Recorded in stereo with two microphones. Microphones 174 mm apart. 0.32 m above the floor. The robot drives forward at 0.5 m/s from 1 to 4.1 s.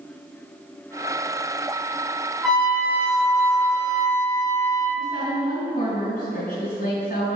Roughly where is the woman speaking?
Left.